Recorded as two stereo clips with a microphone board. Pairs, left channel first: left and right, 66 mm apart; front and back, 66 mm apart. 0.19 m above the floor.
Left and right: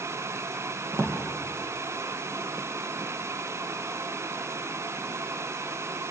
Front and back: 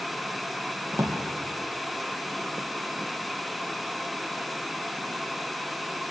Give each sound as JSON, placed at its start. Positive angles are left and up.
{"t": 0.9, "sound": "a drawer", "azimuth_deg": -125, "distance_m": 3.5}